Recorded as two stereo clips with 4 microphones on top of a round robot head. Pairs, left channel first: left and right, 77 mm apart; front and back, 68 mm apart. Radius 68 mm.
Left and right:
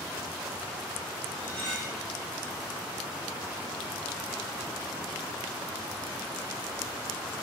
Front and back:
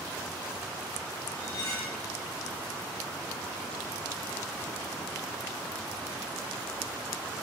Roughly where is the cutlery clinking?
Ahead.